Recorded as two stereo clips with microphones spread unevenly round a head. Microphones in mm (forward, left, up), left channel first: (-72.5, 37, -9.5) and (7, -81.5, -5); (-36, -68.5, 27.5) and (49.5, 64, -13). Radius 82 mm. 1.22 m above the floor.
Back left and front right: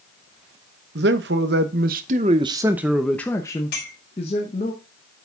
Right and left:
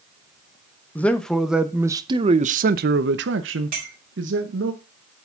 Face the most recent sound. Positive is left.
turn(degrees=100)